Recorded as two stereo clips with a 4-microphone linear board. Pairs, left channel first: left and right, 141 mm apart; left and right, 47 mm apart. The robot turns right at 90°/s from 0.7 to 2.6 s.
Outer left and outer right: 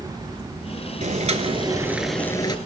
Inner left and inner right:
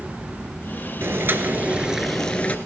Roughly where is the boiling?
Right.